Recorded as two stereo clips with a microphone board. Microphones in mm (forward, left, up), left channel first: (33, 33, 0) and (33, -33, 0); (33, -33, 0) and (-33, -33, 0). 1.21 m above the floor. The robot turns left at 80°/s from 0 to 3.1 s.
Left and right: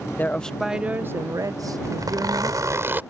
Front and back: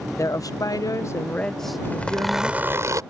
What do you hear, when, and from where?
0.2 s a woman speaking: 35° left; by 2.6 s 160° right
1.8 s a zipper: 55° right; by 3.0 s 150° right